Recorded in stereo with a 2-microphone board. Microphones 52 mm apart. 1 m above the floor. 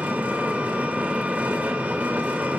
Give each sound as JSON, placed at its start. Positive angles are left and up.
{"t": 0.0, "sound": "an engine running", "side_deg": -30, "distance_m": 2.0}